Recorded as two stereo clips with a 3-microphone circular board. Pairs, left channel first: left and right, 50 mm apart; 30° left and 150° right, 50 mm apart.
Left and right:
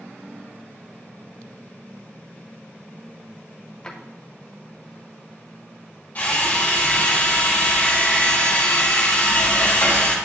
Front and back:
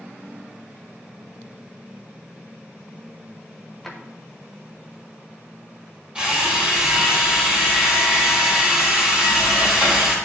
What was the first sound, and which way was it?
A drawer, 110° left.